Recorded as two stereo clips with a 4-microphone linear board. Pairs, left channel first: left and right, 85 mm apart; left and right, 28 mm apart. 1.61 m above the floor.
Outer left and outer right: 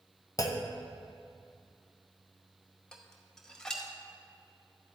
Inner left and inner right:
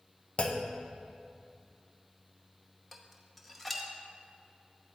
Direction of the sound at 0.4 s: 45° left (ahead or behind).